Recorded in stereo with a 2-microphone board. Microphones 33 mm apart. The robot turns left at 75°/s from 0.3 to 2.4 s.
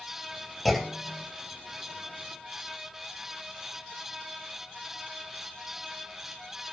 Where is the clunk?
5° left, 2.5 m; by 1.3 s 45° right, 2.5 m.